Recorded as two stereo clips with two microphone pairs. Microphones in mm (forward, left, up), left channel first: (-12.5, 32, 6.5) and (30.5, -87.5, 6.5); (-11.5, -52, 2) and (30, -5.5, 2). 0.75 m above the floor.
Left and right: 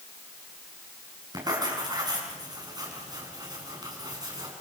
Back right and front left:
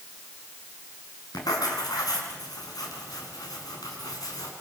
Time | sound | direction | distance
1.3 | writing | 130° right | 4.5 m